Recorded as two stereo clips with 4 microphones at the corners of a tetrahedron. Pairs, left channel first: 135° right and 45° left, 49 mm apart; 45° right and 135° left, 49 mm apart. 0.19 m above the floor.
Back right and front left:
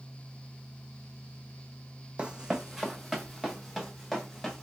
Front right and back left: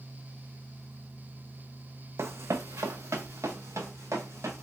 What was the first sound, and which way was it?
Running footsteps, 110° left.